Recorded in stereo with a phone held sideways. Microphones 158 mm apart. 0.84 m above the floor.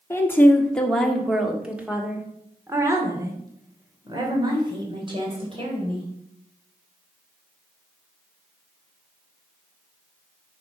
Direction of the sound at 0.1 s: 15° left (ahead or behind).